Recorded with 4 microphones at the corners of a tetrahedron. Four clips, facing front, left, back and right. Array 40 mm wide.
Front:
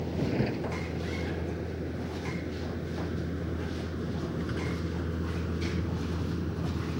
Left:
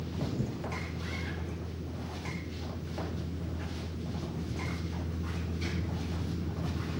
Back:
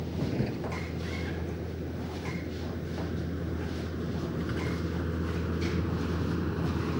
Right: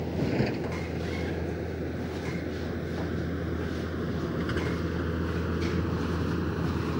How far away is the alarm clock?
I don't hear an alarm clock.